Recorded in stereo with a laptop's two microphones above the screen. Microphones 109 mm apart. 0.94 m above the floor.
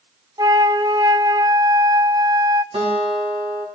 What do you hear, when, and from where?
0.4 s a flute: 45° right (ahead or behind), 0.8 m
2.7 s a guitar: 80° right, 4.5 m